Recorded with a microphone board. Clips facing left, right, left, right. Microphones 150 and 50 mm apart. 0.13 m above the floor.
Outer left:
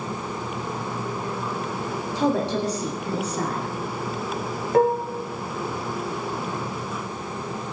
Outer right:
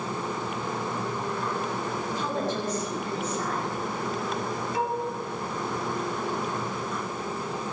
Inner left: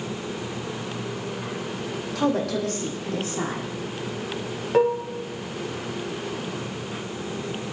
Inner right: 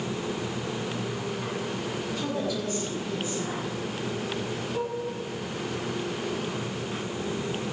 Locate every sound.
2.1 s a woman speaking: 75° left (ahead or behind), 7 m
4.7 s dishes clattering: 55° left (ahead or behind), 2.0 m